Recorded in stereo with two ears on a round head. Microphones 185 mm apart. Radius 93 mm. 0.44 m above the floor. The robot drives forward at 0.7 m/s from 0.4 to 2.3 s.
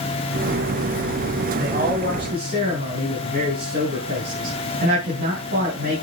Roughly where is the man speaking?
Right.